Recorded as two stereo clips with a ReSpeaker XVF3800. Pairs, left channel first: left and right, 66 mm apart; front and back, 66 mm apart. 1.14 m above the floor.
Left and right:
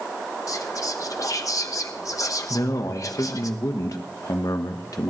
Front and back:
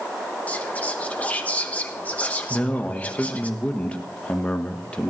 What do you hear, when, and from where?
0.5 s whispering: 65° left, 1.2 m
2.5 s a man speaking: 70° left, 1.2 m